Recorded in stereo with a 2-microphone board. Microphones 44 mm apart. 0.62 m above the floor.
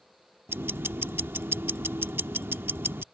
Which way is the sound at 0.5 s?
65° right (ahead or behind).